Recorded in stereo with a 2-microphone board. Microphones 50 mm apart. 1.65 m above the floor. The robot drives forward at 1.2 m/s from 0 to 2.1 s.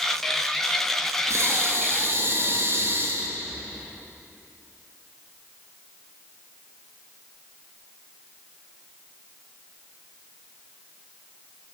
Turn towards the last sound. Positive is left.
turn(degrees=-50)  # may be behind; listen again after turning